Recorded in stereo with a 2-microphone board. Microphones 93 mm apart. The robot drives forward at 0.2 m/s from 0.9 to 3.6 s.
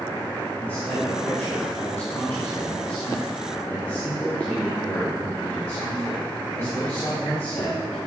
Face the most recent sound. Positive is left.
turn(degrees=15)  # may be behind; listen again after turning